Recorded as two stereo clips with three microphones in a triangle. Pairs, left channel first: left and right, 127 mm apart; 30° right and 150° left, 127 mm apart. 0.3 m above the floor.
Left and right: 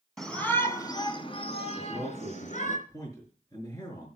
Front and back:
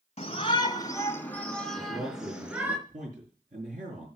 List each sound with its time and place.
0.2 s a shout: 5° left, 2.5 m; by 2.8 s 70° left, 4 m
1.8 s a man speaking: 155° left, 4.5 m